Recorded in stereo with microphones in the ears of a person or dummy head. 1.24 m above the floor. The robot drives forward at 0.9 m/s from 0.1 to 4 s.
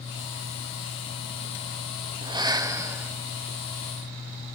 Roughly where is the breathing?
Right.